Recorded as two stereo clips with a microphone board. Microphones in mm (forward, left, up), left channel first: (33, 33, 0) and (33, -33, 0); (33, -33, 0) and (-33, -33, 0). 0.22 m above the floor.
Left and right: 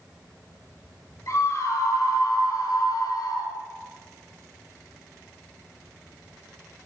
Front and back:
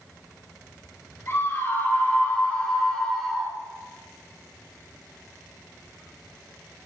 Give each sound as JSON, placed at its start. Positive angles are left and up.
{"t": 1.3, "sound": "a scream", "azimuth_deg": 50, "distance_m": 5.0}